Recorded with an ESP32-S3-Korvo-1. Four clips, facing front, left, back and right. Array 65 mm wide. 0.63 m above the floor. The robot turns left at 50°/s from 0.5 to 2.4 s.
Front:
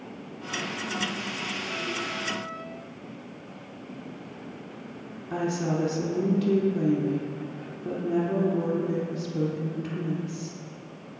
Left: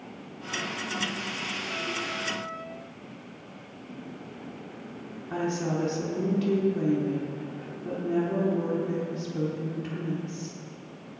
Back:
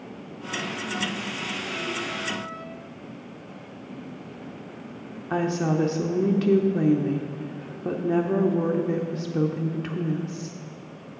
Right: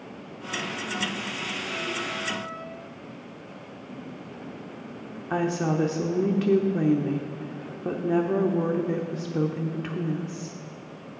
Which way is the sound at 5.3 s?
130° right.